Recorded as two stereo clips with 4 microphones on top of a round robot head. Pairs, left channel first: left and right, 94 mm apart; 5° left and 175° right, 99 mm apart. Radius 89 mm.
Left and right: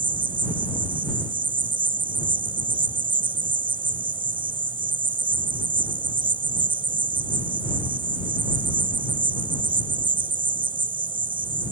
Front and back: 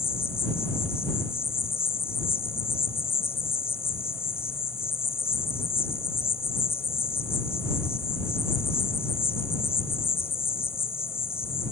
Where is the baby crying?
No baby crying in this recording.